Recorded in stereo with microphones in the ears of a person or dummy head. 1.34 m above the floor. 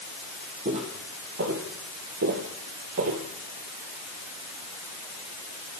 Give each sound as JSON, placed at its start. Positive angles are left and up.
{"t": 0.7, "sound": "footsteps", "side_deg": -30, "distance_m": 3.0}